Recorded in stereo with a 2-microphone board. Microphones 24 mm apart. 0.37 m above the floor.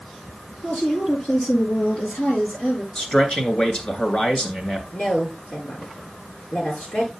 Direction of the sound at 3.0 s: 35° left (ahead or behind).